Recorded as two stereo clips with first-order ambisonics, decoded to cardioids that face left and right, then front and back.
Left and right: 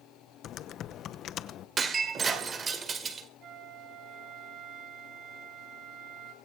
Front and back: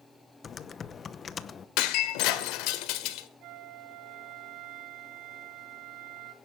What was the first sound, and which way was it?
Typing on a keyboard, 55° left.